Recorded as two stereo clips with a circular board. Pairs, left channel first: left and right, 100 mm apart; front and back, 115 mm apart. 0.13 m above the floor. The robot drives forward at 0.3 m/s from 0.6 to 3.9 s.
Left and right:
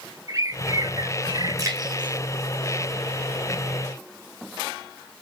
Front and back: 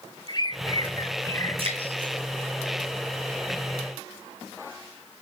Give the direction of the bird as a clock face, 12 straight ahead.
1 o'clock.